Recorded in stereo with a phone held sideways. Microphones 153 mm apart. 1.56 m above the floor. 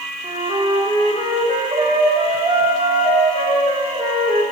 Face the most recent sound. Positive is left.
turn(degrees=-35)  # may be behind; listen again after turning